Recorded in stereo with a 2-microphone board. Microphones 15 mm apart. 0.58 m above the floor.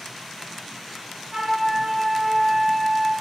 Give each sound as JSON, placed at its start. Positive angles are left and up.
{"t": 1.3, "sound": "a flute", "side_deg": -65, "distance_m": 2.0}